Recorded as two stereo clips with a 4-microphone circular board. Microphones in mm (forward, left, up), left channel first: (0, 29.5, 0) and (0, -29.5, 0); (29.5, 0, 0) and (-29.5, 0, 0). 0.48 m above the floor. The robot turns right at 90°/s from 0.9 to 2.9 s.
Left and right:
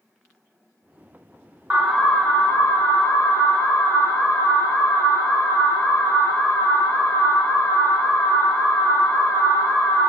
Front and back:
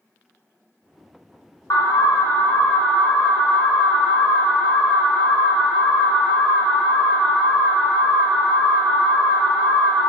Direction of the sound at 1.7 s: 25° right.